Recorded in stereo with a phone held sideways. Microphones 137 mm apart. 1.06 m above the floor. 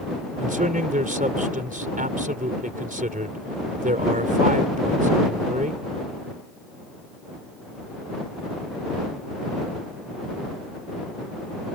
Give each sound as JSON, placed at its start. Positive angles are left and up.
{"t": 0.4, "sound": "a man speaking", "side_deg": -80}